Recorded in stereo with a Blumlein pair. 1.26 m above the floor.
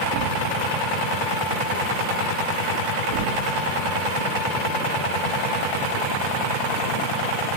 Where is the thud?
50° right, 3.5 m.